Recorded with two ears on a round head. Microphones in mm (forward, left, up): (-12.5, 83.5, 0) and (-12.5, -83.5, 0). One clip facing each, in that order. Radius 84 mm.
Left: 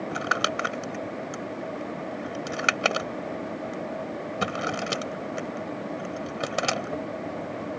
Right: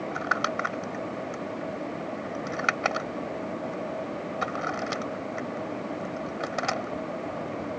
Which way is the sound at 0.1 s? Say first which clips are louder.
Left 1 dB; 40° left (ahead or behind).